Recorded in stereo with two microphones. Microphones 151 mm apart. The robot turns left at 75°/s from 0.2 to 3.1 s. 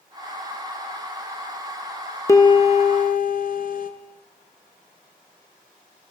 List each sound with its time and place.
2.3 s a piano: 160° left, 0.9 m; by 3.9 s 100° left, 0.9 m